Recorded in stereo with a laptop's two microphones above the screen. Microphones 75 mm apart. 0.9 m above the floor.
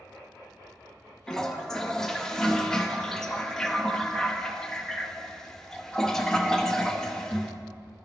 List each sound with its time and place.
1.3 s a toilet flushing: 10° left (ahead or behind), 0.6 m